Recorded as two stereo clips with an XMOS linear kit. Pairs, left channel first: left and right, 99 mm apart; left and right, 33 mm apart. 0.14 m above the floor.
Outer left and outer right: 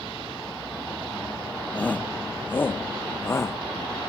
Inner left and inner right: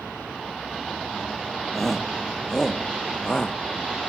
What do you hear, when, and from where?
1.7 s a shout: 10° left (ahead or behind); by 3.6 s 25° left (ahead or behind)